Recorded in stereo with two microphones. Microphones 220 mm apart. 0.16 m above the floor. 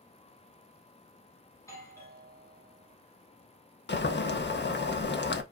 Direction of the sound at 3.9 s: 55° left (ahead or behind).